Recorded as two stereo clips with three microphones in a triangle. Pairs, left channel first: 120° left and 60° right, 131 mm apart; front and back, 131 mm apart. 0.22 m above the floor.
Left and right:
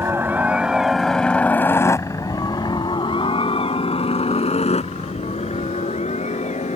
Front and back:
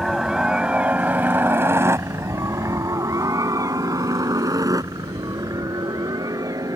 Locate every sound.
0.0 s a helicopter: 95° right; by 6.8 s 120° left